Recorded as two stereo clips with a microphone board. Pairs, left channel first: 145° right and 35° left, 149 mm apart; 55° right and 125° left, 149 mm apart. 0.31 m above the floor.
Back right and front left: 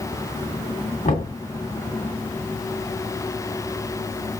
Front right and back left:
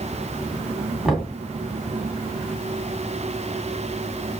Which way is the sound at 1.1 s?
150° right.